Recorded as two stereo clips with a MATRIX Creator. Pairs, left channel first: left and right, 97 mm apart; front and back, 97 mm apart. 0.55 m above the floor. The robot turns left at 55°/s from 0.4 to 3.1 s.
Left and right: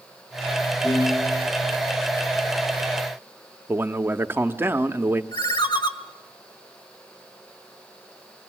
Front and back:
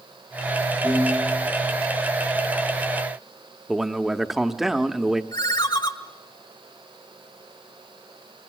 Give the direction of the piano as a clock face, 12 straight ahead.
5 o'clock.